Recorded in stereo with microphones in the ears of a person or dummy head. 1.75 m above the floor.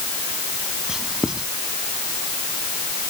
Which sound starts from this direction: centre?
Writing, at 0.9 s.